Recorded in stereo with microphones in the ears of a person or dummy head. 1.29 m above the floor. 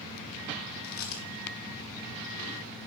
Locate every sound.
0.8 s chewing: 45° left (ahead or behind), 1.7 m